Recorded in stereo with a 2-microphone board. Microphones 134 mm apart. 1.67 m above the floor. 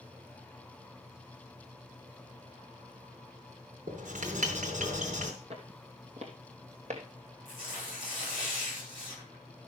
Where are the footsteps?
50° right (ahead or behind), 2.5 m; by 7.0 s 60° right (ahead or behind), 3 m.